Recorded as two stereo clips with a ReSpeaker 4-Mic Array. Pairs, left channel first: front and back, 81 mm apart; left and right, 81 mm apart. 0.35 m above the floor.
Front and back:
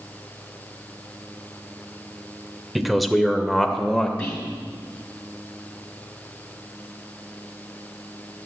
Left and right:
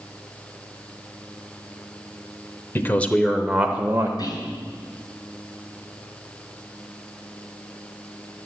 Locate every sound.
2.8 s a man speaking: 95° left, 0.9 m; by 4.1 s 85° right, 0.9 m
4.2 s whispering: 75° left, 3 m